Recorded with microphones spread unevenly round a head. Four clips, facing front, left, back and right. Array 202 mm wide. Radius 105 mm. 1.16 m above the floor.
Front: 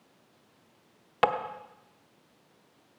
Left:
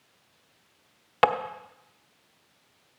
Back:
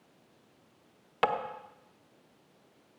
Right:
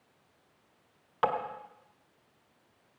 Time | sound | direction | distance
1.2 | tapping | 115° left | 0.9 m